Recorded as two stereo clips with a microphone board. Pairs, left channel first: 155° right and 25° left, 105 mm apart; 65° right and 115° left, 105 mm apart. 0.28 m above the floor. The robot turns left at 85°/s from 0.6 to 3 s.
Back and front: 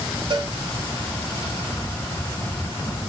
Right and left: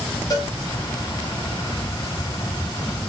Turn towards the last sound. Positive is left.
turn(degrees=140)